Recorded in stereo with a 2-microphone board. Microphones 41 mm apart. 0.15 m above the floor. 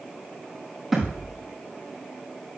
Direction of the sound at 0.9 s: Centre (ahead or behind).